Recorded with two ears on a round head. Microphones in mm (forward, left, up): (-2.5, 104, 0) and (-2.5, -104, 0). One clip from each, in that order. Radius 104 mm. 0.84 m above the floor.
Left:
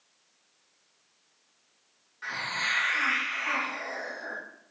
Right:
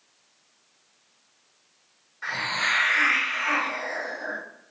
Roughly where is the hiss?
Centre.